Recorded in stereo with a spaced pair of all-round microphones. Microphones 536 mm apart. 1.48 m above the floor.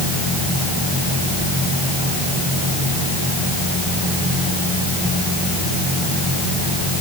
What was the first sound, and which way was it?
Only background noise.